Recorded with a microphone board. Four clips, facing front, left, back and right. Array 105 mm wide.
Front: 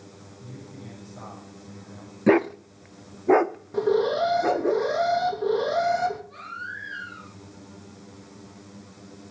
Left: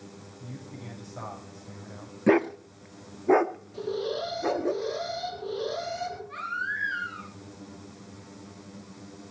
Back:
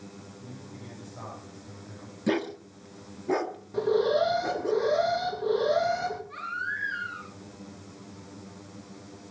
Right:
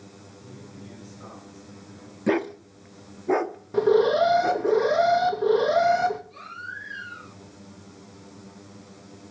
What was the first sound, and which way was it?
A man speaking, 90° left.